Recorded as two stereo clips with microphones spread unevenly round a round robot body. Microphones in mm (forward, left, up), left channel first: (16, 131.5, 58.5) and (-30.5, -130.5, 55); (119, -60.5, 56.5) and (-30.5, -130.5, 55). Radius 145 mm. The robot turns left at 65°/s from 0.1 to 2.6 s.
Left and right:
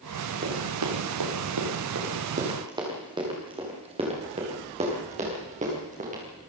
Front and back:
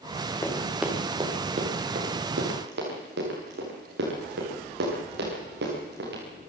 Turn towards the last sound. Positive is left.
turn(degrees=-160)